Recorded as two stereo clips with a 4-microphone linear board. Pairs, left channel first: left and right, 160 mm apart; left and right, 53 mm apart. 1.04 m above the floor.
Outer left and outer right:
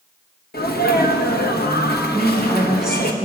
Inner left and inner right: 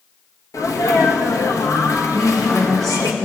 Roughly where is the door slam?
I don't hear a door slam.